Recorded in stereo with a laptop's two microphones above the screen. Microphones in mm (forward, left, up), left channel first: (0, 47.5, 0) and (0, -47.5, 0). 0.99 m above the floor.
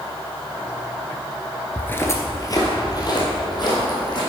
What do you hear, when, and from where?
1.8 s footsteps: 15° left (ahead or behind), 0.9 m; by 4.2 s 45° left (ahead or behind), 3.5 m